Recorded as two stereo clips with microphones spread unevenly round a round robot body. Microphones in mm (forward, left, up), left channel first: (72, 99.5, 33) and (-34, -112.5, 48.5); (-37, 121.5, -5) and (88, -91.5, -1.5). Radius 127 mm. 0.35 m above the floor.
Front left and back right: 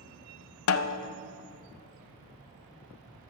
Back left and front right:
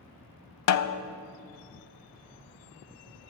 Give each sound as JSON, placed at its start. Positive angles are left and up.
{"t": 0.7, "sound": "a snare drum", "azimuth_deg": 100, "distance_m": 0.5}